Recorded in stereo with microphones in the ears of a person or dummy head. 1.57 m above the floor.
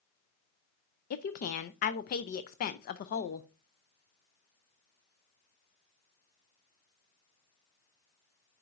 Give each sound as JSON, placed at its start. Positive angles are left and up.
{"t": 1.1, "sound": "a woman speaking", "side_deg": 50, "distance_m": 0.6}